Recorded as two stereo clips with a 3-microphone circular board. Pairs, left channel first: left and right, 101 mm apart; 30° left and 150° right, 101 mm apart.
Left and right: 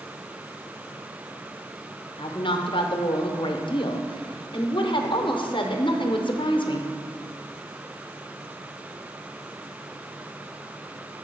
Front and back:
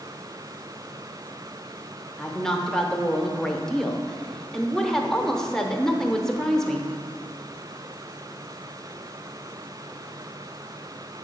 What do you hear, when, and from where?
2.2 s a woman speaking: 115° left, 0.8 m